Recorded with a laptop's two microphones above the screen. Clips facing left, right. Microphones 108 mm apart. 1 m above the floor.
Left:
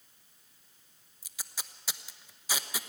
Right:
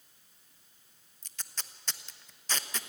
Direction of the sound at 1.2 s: 10° left (ahead or behind).